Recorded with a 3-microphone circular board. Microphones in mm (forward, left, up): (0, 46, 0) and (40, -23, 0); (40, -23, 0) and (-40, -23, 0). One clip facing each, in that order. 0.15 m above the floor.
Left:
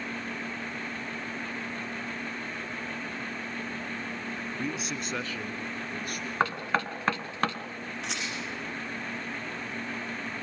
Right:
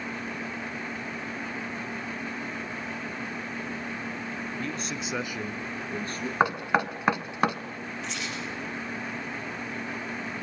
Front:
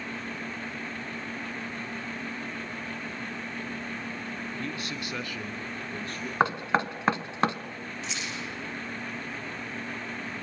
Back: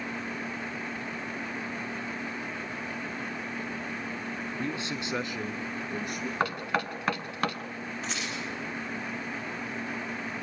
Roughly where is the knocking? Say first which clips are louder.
Right 4 dB, front 5 dB; ahead.